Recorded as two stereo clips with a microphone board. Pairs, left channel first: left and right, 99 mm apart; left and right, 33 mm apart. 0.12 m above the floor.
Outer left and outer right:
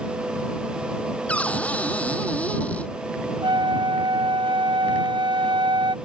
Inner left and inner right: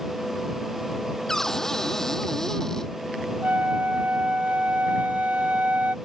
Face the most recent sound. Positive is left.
turn(degrees=-50)  # may be behind; listen again after turning